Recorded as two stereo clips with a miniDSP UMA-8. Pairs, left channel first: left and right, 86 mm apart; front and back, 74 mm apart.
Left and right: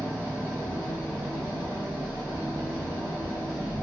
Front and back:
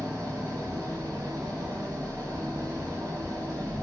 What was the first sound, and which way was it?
An engine running, 145° right.